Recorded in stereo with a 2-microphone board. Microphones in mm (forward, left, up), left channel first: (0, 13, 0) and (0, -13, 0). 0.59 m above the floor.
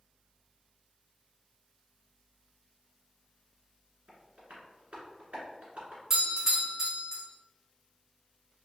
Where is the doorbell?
20° right (ahead or behind), 1.2 m.